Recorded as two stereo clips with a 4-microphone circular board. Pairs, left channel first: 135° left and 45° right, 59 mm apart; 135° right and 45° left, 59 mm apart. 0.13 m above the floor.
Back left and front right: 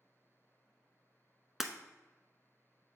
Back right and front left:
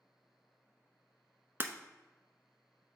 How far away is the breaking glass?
About 0.7 m.